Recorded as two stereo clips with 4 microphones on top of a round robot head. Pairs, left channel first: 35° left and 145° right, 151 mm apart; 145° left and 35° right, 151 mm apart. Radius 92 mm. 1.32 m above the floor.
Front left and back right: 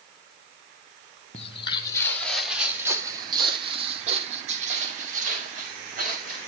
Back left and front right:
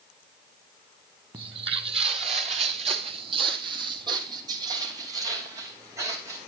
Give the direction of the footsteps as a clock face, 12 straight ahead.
12 o'clock.